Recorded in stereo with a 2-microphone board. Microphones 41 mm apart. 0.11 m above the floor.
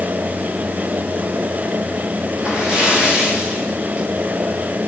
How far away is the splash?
About 9 m.